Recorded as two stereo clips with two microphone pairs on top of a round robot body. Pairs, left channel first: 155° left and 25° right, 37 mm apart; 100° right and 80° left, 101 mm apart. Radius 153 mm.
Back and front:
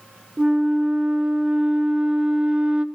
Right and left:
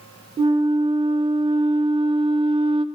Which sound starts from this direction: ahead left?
A flute, at 0.4 s.